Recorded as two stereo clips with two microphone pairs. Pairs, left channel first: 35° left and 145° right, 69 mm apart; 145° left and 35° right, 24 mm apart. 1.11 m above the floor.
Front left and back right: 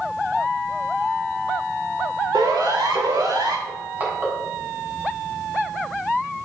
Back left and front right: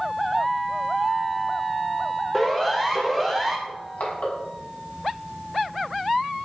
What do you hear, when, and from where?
2.3 s a siren: 140° right, 3.5 m
3.7 s crushing: 150° left, 7.5 m